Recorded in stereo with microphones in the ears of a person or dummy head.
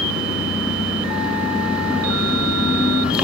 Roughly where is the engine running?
Centre.